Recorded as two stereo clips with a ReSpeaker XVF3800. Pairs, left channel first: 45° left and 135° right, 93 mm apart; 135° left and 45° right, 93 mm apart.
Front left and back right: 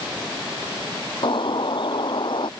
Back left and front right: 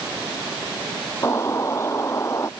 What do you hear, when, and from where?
1.2 s a bird: 75° left